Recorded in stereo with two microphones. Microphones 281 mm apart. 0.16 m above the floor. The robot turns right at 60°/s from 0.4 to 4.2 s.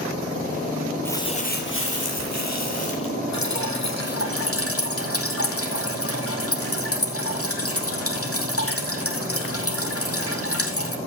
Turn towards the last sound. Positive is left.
turn(degrees=55)  # may be behind; listen again after turning